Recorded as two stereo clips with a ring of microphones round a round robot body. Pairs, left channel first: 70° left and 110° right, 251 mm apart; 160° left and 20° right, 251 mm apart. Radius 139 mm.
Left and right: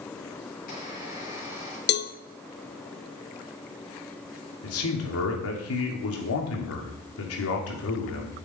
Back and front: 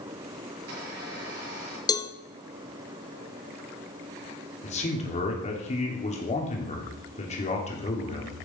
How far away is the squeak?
About 8.5 m.